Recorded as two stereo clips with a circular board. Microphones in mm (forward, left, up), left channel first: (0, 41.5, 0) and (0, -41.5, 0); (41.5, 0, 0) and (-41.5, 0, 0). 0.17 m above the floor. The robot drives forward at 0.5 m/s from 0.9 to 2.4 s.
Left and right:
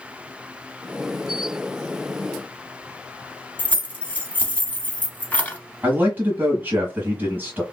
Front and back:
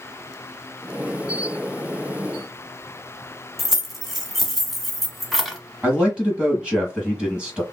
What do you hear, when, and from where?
3.6 s keys jangling: 95° left, 0.8 m
5.8 s a man speaking: 115° right, 1.6 m